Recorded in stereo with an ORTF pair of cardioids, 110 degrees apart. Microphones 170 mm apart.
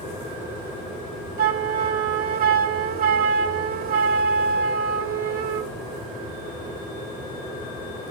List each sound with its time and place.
1.4 s a flute: 60° right, 0.8 m